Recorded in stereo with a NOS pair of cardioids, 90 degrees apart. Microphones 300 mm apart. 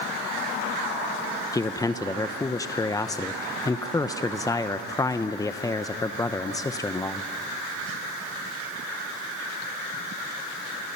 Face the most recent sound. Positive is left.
turn(degrees=10)